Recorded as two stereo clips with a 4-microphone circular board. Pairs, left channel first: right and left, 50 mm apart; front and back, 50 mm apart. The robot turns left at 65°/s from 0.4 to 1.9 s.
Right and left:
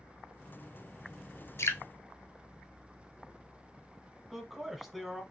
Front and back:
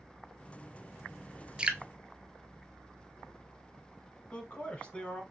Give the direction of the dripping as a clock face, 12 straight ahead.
4 o'clock.